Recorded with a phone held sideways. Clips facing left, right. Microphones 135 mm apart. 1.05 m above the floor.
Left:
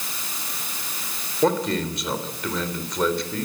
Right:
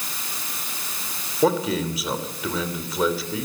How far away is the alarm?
I don't hear an alarm.